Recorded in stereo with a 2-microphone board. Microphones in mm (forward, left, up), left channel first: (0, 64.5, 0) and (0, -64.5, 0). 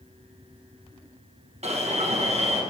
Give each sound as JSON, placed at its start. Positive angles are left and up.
{"t": 1.6, "sound": "an alarm", "side_deg": -55, "distance_m": 1.5}